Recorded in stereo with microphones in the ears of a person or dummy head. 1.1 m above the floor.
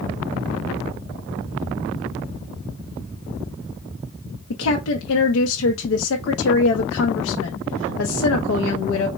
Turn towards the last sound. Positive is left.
turn(degrees=75)  # may be behind; listen again after turning